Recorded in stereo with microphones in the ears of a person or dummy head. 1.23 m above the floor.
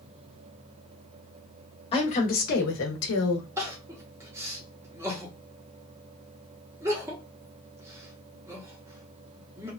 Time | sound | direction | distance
1.9 | a woman speaking | 30° left (ahead or behind) | 1.1 m
3.6 | crying | 15° right (ahead or behind) | 0.7 m